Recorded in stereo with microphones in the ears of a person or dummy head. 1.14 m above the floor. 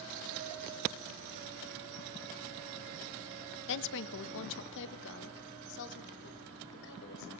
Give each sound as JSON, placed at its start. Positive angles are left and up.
{"t": 3.7, "sound": "a woman speaking", "side_deg": 60, "distance_m": 1.0}